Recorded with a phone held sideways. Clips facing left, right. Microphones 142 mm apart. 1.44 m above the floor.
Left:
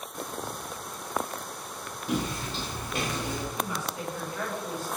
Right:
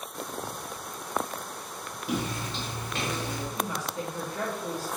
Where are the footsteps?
5° right (ahead or behind), 1.6 m; by 3.5 s 20° left (ahead or behind), 1.5 m.